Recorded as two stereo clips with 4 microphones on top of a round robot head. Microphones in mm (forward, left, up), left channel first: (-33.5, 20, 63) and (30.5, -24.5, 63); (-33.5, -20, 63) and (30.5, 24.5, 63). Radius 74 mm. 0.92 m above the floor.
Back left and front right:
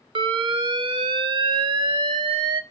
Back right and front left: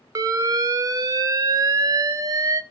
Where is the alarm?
15° right, 0.5 m.